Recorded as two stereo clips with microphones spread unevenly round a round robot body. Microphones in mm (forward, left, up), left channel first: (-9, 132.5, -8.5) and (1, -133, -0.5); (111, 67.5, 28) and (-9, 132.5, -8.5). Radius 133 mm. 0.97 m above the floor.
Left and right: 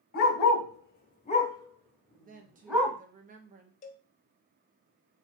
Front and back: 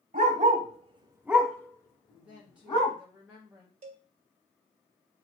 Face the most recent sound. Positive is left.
turn(degrees=155)